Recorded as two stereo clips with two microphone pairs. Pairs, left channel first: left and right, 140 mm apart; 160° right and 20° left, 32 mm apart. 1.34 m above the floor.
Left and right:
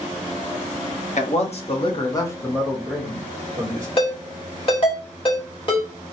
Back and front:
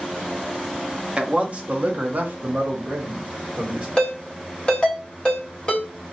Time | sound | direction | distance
1.2 | a man speaking | 70° left | 1.0 m
4.0 | a ringtone | 135° left | 2.0 m